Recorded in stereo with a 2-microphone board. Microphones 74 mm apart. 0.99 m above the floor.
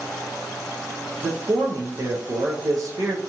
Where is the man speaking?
55° right (ahead or behind), 0.6 m.